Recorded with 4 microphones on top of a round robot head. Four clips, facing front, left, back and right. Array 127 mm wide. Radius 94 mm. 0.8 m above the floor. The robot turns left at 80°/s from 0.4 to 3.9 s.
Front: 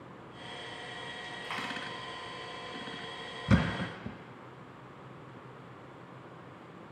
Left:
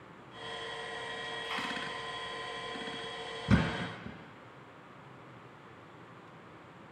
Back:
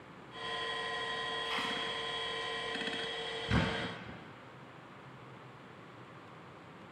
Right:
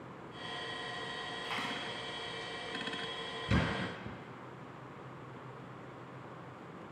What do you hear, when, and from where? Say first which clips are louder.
1.4 s a dropped coin: left 1 dB, front 3 dB; 20° right, 3.5 m; by 1.7 s 40° right, 3.5 m
3.5 s a thud: left 4 dB, front 5 dB; 40° left, 1.1 m; by 4.2 s 5° left, 1.1 m